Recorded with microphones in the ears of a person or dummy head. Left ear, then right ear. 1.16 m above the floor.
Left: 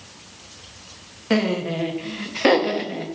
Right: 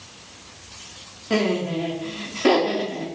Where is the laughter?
35° left (ahead or behind), 0.6 m.